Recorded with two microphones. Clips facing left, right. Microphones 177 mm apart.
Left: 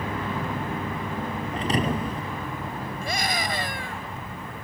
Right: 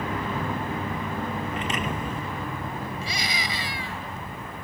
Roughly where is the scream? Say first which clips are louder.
Left 4 dB; left.